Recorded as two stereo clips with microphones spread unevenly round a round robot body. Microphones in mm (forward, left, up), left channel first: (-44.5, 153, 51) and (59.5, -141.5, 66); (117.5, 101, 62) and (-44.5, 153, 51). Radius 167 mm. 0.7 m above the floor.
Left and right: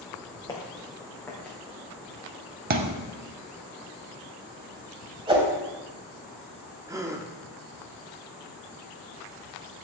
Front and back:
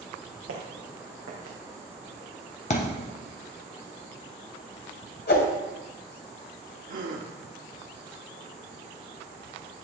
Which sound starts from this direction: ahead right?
A thud, at 2.7 s.